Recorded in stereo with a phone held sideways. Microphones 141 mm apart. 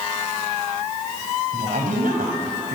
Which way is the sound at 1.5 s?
90° right.